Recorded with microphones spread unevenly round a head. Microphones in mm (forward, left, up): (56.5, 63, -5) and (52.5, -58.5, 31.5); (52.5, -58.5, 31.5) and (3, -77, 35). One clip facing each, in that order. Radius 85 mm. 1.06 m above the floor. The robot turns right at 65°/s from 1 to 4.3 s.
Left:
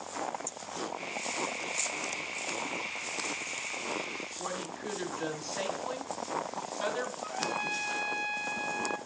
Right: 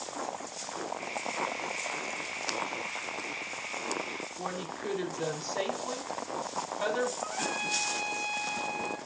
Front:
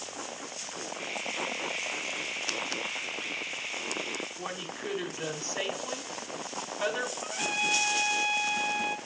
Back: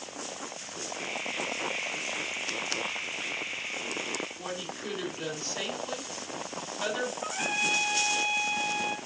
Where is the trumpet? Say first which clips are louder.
Even, even; 85° right, 2.5 m.